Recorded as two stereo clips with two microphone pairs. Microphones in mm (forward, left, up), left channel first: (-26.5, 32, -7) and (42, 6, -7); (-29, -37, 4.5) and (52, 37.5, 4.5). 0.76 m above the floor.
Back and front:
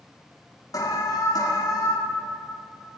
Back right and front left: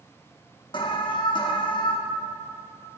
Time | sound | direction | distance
0.7 | an alarm | 175° right | 0.9 m